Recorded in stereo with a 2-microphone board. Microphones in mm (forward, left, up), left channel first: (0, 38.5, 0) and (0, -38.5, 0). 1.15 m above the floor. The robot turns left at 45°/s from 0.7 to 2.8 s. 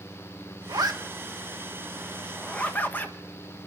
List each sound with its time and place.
0.7 s a zipper: 60° right (ahead or behind), 1.4 m; by 3.1 s 25° left (ahead or behind), 1.4 m